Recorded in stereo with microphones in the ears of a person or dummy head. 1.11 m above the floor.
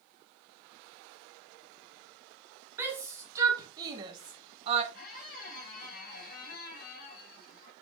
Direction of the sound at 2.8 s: 10° right (ahead or behind).